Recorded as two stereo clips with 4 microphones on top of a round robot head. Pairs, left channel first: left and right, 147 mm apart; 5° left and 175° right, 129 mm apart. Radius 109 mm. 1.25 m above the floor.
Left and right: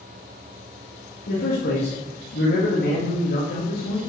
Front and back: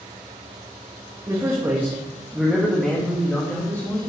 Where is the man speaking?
120° left, 2 m; by 4.0 s 75° left, 2.5 m.